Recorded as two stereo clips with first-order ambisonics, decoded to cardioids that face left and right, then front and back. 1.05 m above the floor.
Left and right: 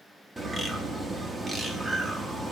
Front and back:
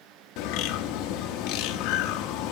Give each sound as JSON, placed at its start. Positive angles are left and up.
{"t": 0.4, "sound": "a bird", "azimuth_deg": -10, "distance_m": 0.7}